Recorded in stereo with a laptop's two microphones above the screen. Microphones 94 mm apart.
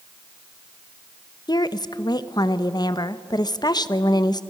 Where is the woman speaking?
50° left (ahead or behind), 1.0 m.